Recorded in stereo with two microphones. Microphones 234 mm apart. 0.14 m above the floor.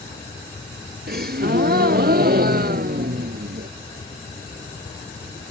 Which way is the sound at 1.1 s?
45° right (ahead or behind).